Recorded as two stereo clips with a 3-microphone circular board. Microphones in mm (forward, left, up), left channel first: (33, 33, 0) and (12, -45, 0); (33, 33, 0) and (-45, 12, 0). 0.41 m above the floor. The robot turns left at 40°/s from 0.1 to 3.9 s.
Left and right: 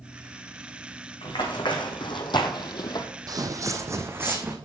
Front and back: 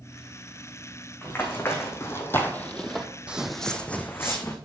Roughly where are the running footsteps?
Left.